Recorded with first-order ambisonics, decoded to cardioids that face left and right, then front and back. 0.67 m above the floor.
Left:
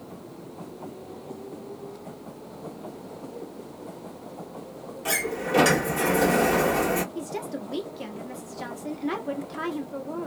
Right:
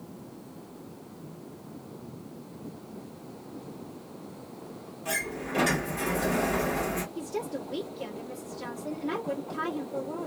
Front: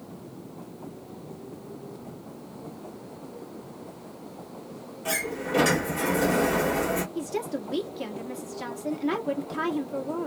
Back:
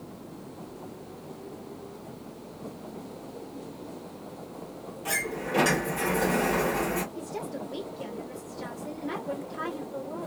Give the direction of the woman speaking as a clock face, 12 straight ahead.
11 o'clock.